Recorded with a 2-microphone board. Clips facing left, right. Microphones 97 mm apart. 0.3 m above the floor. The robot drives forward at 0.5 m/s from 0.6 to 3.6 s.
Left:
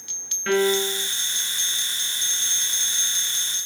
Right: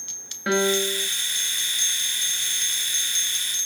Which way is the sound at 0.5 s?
15° right (ahead or behind).